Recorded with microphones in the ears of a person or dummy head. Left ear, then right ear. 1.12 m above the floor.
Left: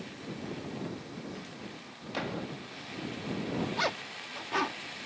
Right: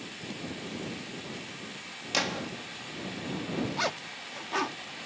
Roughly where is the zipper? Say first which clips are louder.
Left 1 dB; centre.